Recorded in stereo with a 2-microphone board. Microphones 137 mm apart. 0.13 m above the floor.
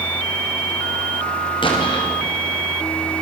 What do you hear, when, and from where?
1.6 s an explosion: 40° left (ahead or behind), 8 m